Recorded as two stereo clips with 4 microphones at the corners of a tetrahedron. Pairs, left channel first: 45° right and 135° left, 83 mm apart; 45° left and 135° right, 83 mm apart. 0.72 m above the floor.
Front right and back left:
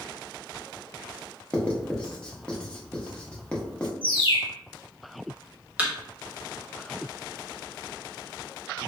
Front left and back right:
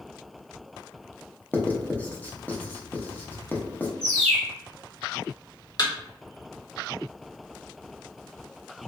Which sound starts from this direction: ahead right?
A bird, at 4.0 s.